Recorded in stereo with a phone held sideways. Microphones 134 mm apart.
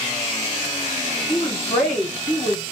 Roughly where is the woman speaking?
Left.